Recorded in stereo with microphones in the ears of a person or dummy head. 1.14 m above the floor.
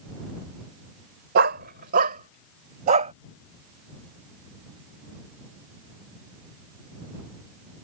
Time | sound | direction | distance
1.4 | a dog barking | 55° right (ahead or behind) | ?